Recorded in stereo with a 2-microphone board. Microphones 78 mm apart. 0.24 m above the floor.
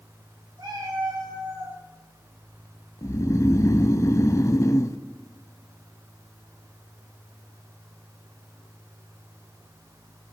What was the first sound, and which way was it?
A cat meowing, 70° right (ahead or behind).